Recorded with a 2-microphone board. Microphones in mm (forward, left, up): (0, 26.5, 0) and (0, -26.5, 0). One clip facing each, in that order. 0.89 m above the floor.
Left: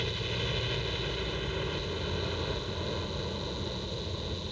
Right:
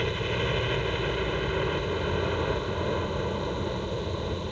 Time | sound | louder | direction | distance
0.0 | a helicopter | right 6 dB | 30° right (ahead or behind) | ?